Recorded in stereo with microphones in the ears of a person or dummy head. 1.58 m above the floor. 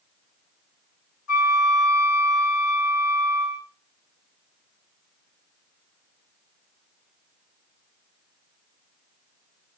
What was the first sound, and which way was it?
A flute, 85° left.